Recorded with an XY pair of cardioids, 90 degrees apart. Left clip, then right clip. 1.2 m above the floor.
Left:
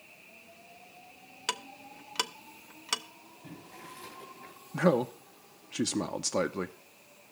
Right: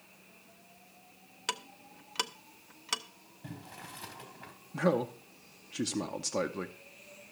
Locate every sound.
1.5 s ticking: 15° left, 0.5 m
3.4 s boiling: 70° right, 3 m
4.7 s a man speaking: 30° left, 0.6 m